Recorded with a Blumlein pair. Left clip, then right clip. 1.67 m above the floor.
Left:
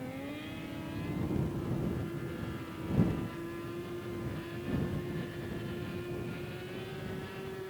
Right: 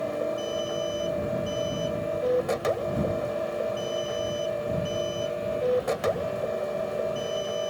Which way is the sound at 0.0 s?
45° right.